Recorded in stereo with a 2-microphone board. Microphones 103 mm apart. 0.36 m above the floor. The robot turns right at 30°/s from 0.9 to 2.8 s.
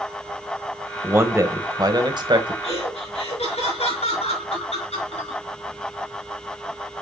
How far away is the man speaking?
About 1.5 m.